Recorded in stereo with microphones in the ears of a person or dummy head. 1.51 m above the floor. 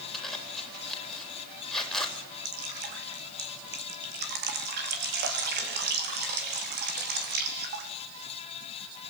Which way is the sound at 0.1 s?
5° left (ahead or behind).